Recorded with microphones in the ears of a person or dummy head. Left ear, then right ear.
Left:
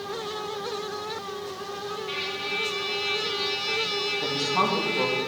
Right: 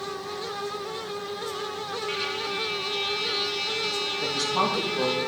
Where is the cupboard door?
I don't hear a cupboard door.